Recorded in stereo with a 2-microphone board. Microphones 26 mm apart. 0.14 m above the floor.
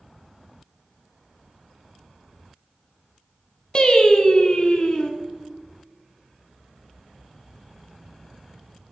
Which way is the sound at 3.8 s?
35° left (ahead or behind).